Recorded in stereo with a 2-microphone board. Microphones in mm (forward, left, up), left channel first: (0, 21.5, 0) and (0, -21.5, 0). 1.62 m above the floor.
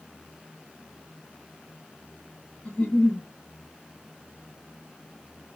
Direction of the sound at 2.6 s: 35° left (ahead or behind).